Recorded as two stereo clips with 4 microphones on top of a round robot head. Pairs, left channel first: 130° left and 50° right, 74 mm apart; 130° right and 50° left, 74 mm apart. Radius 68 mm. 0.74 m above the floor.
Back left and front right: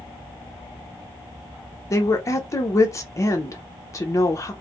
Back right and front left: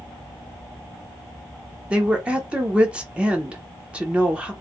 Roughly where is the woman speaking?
Behind left.